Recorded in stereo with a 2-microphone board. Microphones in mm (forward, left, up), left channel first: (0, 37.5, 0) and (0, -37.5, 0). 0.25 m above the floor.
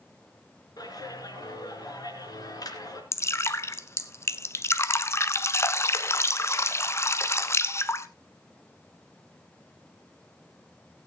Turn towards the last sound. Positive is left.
turn(degrees=40)  # may be behind; listen again after turning